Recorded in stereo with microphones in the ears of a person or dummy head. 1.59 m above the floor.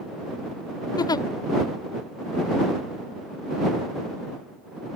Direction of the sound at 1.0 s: 20° left (ahead or behind).